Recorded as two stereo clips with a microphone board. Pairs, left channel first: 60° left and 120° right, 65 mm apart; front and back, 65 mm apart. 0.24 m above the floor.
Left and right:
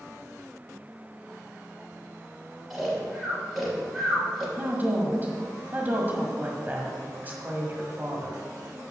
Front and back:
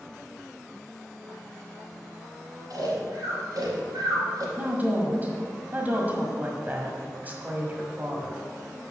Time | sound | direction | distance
2.7 | snoring | 150° left | 3 m
4.6 | a woman speaking | 145° right | 1.5 m